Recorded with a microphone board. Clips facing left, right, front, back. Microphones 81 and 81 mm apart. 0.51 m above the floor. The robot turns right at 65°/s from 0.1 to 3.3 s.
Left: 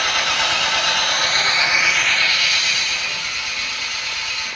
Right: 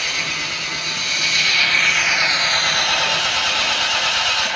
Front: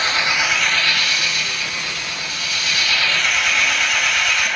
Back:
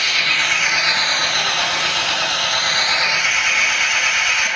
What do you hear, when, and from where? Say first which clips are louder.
0.0 s an engine running: left 6 dB, front 1 dB; 60° left, 1.0 m; by 4.6 s 95° right, 1.0 m